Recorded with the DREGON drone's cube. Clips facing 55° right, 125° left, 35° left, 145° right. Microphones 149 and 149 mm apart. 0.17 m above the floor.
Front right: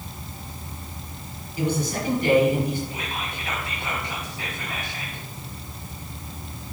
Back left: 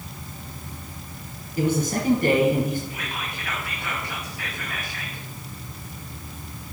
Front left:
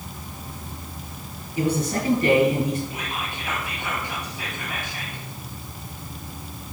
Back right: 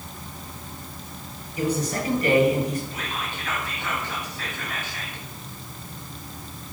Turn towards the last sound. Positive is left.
turn(degrees=-30)